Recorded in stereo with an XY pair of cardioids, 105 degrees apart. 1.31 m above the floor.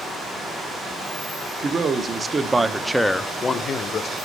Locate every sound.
1.6 s a man speaking: 45° right, 1.2 m; by 4.2 s 60° left, 0.8 m